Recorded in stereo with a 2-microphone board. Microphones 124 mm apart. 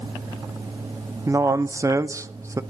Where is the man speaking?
25° right (ahead or behind), 0.5 m.